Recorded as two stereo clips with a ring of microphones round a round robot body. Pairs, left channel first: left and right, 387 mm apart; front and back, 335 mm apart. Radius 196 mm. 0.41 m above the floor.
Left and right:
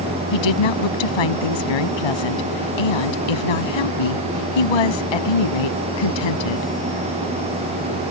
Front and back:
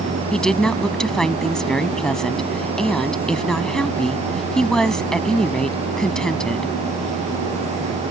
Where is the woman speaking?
90° left.